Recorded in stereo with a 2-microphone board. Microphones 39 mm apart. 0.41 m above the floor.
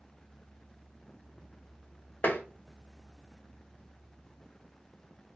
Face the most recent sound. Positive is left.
turn(degrees=55)  # may be behind; listen again after turning